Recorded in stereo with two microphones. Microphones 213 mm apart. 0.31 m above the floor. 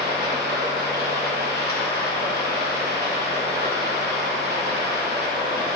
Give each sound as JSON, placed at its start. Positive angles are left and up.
{"t": 0.0, "sound": "running water", "side_deg": -50, "distance_m": 1.9}